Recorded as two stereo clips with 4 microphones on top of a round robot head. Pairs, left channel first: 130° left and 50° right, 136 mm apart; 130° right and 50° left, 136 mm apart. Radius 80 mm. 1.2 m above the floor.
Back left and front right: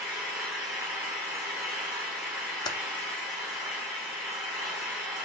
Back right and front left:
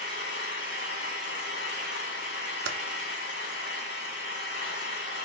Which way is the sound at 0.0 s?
125° right.